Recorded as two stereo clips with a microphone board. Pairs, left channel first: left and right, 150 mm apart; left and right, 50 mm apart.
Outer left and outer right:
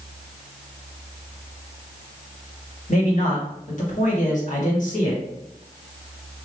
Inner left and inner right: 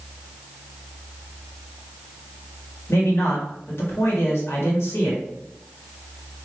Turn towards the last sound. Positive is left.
turn(degrees=55)  # may be behind; listen again after turning